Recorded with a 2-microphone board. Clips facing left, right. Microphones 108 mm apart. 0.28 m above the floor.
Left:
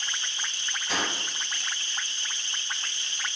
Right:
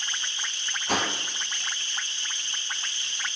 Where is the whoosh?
55° right (ahead or behind), 0.5 m.